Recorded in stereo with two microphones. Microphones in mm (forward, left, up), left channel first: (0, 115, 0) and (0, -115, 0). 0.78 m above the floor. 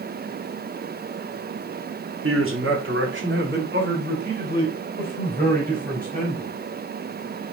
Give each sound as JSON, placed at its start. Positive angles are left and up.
{"t": 2.2, "sound": "a man speaking", "side_deg": -65, "distance_m": 1.7}